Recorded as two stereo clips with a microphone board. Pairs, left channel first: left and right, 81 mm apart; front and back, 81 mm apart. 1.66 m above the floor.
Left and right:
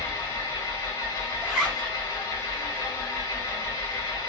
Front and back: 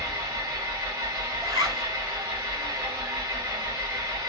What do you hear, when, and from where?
0.0 s an engine running: 145° left, 2 m
1.4 s a zipper: 175° right, 2.5 m